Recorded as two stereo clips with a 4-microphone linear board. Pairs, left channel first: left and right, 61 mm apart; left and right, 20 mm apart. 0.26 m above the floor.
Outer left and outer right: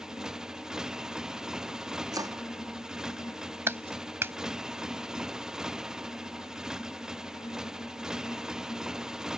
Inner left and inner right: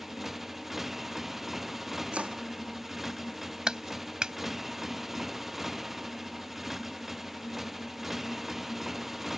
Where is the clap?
40° right (ahead or behind).